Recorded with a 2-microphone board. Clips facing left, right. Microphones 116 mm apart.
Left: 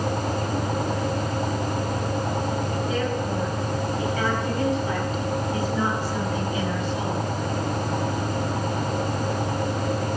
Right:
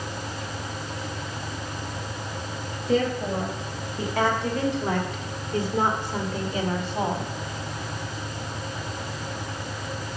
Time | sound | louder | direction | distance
2.9 | a woman speaking | right 7 dB | 80° right | 3.5 m